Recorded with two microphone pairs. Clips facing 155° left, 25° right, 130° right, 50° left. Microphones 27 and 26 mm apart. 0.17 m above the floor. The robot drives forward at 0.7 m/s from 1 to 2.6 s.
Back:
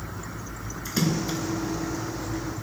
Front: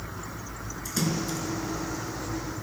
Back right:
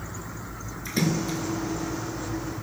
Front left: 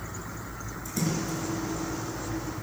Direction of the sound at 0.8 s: 140° right.